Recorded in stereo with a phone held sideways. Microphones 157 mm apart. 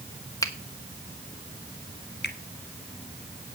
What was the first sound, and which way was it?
A finger snap, 20° left (ahead or behind).